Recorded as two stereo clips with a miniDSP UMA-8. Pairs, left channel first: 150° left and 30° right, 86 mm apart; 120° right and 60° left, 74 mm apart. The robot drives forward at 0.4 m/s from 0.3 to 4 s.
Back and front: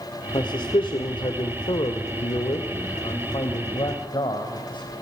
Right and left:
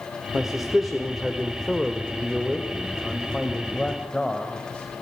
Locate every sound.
0.3 s a man speaking: 145° left, 1.7 m; by 4.9 s 160° left, 3 m